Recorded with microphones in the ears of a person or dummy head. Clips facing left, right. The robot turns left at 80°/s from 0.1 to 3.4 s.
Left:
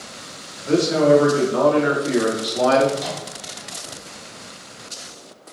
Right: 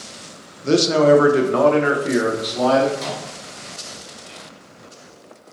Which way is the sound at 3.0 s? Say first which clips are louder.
Even; 60° right (ahead or behind).